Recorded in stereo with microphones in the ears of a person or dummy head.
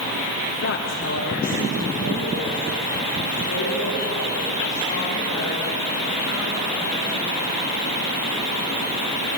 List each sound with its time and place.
0.6 s a woman speaking: 55° left (ahead or behind), 0.7 m; by 7.6 s 80° left, 9.5 m